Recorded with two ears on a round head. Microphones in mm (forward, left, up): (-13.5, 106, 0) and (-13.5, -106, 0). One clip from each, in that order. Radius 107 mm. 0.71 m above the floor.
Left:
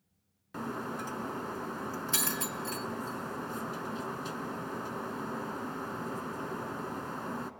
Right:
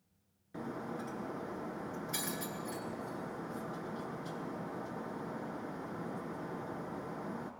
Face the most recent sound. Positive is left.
turn(degrees=45)  # may be behind; listen again after turning